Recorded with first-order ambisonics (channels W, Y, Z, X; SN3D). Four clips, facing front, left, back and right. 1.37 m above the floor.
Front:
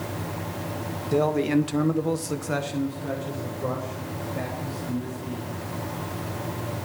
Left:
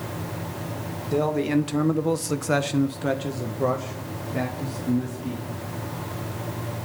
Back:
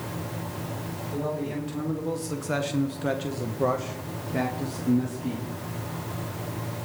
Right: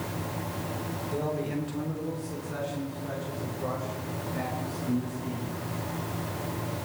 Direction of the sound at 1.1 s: 35° left.